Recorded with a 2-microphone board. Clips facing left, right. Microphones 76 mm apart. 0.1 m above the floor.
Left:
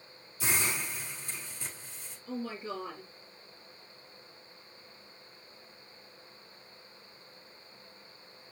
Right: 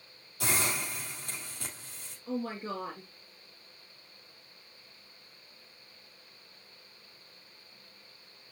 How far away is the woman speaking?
About 2 m.